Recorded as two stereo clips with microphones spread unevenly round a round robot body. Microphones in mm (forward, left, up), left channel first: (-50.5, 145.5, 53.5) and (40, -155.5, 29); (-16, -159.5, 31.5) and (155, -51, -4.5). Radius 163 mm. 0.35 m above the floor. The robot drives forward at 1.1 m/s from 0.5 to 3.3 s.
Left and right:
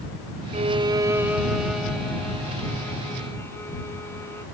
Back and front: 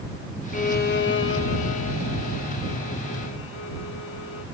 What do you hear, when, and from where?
0.5 s a violin: 115° right; by 4.5 s 170° right